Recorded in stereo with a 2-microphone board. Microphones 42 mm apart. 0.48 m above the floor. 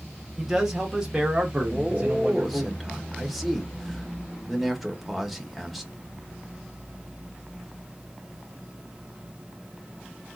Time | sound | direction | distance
0.4 | a man speaking | 5° right (ahead or behind) | 1.3 m
1.7 | a man speaking | centre (ahead or behind) | 1.3 m